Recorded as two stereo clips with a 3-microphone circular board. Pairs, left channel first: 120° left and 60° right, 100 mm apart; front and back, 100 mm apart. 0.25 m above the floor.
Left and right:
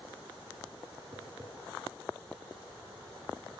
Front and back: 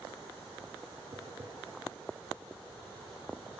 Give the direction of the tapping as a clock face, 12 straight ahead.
4 o'clock.